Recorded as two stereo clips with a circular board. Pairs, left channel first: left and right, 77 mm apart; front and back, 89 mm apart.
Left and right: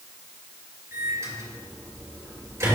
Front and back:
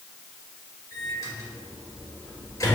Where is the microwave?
50° right, 1.9 m.